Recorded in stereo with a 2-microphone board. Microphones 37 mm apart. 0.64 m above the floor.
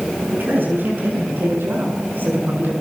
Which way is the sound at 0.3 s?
65° right (ahead or behind).